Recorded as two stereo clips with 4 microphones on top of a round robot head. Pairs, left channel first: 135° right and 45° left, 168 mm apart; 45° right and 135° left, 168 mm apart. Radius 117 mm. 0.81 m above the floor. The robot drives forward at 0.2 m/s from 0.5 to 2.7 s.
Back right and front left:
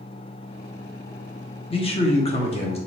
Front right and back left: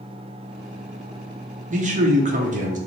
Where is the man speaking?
170° left, 0.9 m; by 2.8 s 175° left, 1.1 m.